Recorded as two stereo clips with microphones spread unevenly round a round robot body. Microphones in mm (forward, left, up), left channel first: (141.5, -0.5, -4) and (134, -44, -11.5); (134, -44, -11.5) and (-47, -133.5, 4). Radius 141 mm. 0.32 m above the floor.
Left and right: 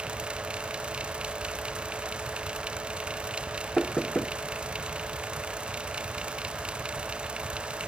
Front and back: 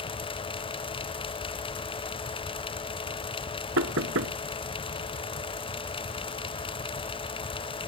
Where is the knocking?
170° left.